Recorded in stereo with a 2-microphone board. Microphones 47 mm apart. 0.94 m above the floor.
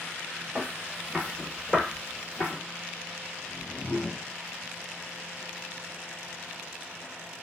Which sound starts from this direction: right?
Footsteps, at 0.6 s.